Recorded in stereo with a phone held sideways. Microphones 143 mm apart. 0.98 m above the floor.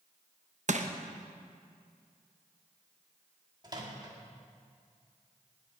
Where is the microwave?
30° right (ahead or behind), 1.8 m.